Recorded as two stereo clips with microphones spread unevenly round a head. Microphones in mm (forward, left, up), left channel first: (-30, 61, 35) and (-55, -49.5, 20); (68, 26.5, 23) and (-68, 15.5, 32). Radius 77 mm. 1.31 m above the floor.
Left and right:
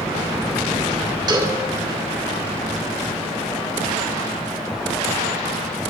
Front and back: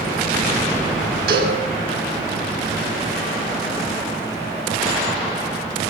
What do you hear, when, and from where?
1.3 s a cowbell: 155° right, 6.5 m